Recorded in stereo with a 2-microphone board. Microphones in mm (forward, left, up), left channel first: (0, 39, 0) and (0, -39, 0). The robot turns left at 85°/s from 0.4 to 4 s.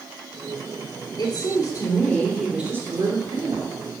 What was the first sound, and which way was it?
A woman speaking, 100° left.